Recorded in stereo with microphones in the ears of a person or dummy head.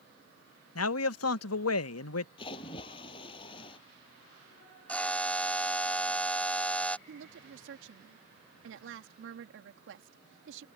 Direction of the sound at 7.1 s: 60° right (ahead or behind).